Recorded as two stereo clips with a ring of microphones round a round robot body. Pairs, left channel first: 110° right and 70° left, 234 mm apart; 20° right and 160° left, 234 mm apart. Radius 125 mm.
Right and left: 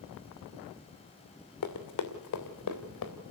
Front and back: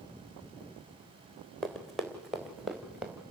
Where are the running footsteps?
110° right, 2.5 m; by 3.1 s 115° right, 3.5 m.